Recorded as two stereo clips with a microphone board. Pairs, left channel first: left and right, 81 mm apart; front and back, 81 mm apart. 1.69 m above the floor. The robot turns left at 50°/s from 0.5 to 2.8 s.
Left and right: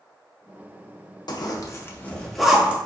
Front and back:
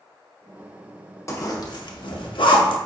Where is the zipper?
55° left, 0.6 m; by 2.8 s 20° right, 0.6 m.